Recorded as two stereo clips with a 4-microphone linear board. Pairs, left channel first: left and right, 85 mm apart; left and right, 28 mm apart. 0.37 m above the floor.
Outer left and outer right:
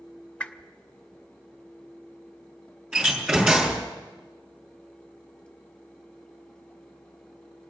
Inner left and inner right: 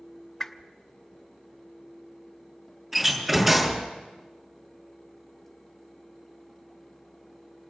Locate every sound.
0.4 s a whoosh: 15° left (ahead or behind), 0.8 m
2.9 s a door slam: 15° right (ahead or behind), 5.5 m